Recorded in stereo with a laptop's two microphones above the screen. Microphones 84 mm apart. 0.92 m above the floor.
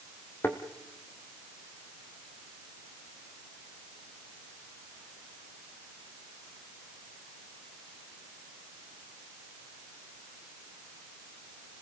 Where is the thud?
25° left (ahead or behind), 2.5 m.